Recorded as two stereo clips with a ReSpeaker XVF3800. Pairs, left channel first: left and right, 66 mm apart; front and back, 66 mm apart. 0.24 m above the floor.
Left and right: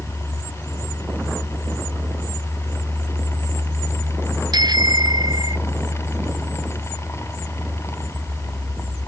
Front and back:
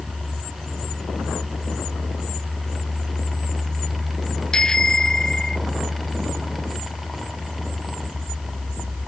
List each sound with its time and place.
4.5 s a bicycle bell: 80° right